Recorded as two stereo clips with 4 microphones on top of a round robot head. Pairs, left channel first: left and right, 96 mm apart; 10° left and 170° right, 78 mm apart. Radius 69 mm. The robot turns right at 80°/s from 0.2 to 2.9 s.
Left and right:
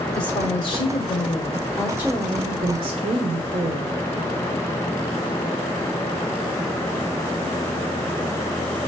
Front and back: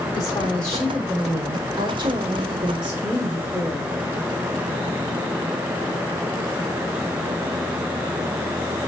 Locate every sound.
0.1 s a woman speaking: 50° left, 1.6 m; by 4.0 s 95° right, 1.6 m